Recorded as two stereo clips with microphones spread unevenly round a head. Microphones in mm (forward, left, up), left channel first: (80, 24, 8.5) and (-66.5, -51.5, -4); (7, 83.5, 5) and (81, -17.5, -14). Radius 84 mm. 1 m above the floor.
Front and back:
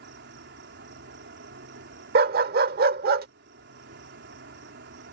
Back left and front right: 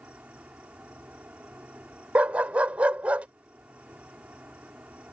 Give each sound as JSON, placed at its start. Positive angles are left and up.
{"t": 0.0, "sound": "an insect", "azimuth_deg": -135}
{"t": 2.1, "sound": "a dog barking", "azimuth_deg": -140}